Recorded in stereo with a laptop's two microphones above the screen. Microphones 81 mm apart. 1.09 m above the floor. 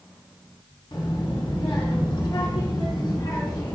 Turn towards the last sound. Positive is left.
turn(degrees=90)